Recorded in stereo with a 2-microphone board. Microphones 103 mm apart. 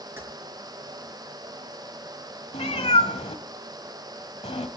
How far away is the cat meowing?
About 1.2 m.